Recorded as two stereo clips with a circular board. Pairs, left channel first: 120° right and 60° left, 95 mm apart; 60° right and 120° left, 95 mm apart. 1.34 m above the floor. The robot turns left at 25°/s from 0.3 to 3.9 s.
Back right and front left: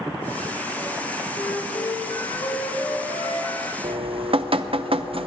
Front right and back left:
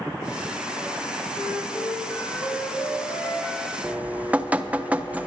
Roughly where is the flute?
Right.